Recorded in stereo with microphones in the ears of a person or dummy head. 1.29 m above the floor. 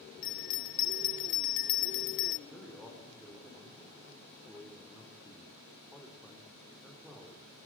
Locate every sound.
0.2 s a bell: 40° left (ahead or behind), 0.7 m
2.5 s a man speaking: centre (ahead or behind), 3.5 m